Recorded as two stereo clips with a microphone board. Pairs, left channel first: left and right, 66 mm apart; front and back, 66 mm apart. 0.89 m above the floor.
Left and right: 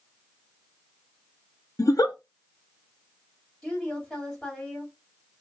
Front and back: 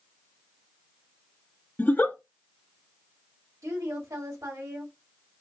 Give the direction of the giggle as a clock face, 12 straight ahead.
10 o'clock.